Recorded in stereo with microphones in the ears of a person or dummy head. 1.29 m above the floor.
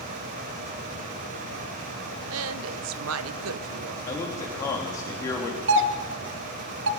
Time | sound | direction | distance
2.3 | a woman speaking | 80° right | 0.7 m
4.0 | a man speaking | 15° left (ahead or behind) | 2.5 m
5.7 | a doorbell | 60° right (ahead or behind) | 0.8 m